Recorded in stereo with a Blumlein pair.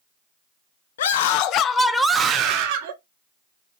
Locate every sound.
1.0 s a scream: 60° left, 0.7 m; by 2.9 s 50° right, 0.8 m